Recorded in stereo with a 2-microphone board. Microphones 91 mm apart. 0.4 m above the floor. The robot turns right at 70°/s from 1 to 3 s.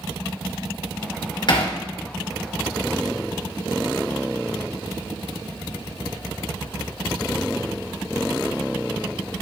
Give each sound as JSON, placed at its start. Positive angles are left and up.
{"t": 1.5, "sound": "hammering", "side_deg": 55, "distance_m": 1.7}